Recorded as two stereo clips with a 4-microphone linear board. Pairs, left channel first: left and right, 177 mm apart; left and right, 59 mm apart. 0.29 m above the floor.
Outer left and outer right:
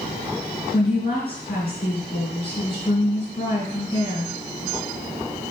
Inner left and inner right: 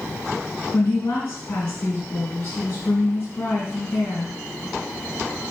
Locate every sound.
0.7 s a woman speaking: 30° left (ahead or behind), 3 m